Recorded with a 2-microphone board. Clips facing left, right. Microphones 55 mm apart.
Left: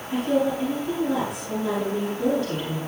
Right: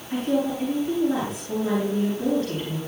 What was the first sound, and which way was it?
A woman speaking, 5° left (ahead or behind).